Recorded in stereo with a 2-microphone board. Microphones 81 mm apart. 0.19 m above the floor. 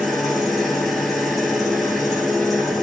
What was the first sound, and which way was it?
An engine running, centre (ahead or behind).